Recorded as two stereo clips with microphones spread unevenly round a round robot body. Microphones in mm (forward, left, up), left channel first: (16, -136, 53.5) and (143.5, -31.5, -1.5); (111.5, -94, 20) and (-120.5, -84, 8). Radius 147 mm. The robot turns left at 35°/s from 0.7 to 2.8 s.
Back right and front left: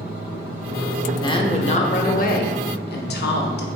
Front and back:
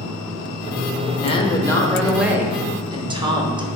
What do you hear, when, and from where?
1.2 s a woman speaking: 60° right, 0.7 m; by 3.7 s 120° right, 0.7 m